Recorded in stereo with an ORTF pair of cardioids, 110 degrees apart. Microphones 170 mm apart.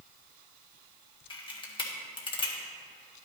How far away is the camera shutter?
About 1.8 m.